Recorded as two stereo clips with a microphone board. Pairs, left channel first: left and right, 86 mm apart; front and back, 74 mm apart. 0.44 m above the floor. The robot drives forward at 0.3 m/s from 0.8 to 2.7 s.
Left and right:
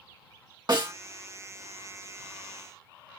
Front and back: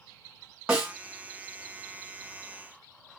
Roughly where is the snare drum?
Right.